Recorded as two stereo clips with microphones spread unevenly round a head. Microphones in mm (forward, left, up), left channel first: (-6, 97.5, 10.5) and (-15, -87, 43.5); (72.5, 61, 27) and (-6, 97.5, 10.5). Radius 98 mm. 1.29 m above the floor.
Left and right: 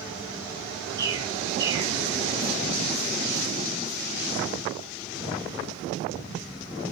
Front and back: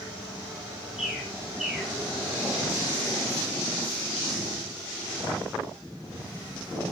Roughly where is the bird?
Right.